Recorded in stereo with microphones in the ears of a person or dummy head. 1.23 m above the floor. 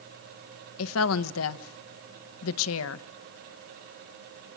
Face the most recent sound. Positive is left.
turn(degrees=85)